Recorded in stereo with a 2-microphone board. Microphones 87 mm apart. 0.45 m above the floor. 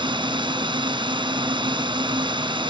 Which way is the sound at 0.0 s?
65° right (ahead or behind).